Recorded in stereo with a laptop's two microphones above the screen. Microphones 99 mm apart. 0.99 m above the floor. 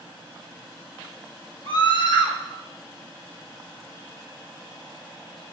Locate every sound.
1.6 s a scream: 55° left (ahead or behind), 2.5 m